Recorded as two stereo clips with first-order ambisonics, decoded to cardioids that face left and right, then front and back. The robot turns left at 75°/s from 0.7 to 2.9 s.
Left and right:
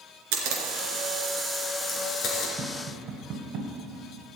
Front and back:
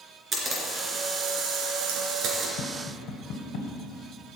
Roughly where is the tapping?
Ahead.